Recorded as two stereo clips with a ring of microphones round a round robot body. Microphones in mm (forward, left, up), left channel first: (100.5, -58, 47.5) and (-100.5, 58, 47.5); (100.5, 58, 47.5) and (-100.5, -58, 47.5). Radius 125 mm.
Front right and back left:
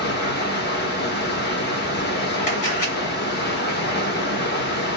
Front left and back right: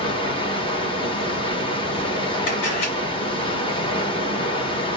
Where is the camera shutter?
30° left, 2.5 m.